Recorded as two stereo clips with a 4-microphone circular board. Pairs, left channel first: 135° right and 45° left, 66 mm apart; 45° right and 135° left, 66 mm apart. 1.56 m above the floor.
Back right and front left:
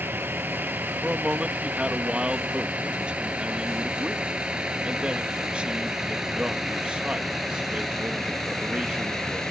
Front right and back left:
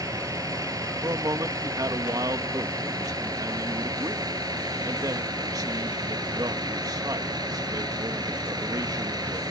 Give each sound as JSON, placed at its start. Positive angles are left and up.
{"t": 0.0, "sound": "a vehicle", "azimuth_deg": 105}
{"t": 1.0, "sound": "a man speaking", "azimuth_deg": 115}